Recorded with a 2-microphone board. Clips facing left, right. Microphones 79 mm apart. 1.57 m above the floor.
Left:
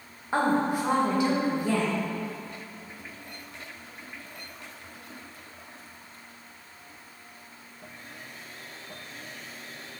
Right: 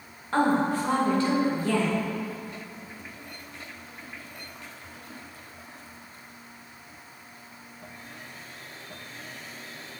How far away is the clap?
I don't hear a clap.